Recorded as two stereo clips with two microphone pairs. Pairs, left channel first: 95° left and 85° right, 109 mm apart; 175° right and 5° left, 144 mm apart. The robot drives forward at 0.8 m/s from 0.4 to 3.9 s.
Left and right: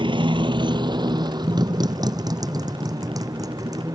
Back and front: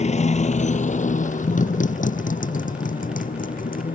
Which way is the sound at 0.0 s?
130° right.